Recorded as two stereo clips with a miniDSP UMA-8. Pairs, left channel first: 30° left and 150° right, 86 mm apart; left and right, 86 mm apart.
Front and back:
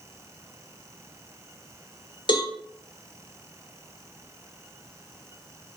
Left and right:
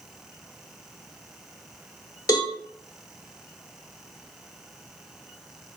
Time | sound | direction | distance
2.3 | a cowbell | 45° left | 0.9 m